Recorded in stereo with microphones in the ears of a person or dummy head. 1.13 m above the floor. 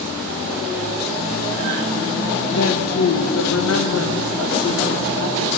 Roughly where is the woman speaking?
Left.